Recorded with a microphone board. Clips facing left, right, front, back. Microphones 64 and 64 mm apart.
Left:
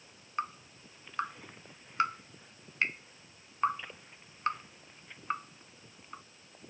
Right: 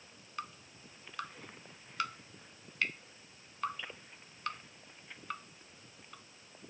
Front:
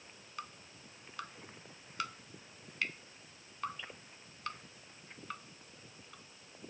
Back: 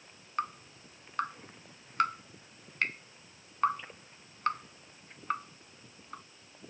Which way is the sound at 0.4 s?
145° left.